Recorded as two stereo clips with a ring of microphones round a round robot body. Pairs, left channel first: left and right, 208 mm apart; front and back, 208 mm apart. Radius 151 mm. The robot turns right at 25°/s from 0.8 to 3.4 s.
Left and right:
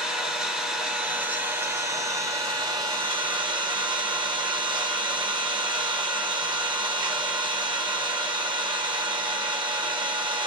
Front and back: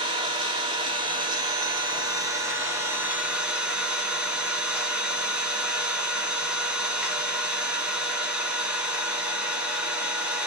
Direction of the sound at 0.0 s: 170° right.